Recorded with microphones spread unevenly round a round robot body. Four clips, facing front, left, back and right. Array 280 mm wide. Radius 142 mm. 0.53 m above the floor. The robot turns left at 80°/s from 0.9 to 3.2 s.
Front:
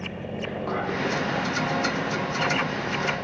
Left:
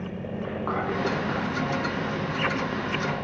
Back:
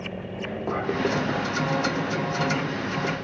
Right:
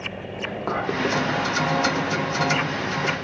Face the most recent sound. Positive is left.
turn(degrees=50)